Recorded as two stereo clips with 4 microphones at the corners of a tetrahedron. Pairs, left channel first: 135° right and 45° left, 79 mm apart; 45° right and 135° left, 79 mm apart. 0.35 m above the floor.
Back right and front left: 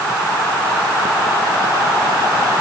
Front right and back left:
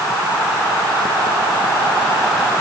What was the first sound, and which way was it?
Only background noise.